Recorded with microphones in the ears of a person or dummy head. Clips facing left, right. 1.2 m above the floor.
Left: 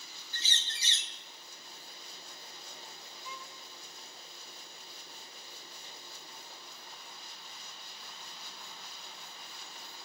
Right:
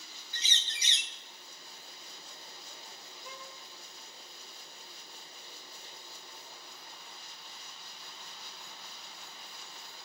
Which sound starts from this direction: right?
A violin, at 3.2 s.